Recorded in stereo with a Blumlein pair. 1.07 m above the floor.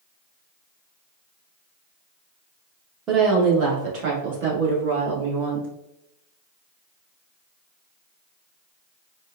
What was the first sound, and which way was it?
A woman speaking, 25° right.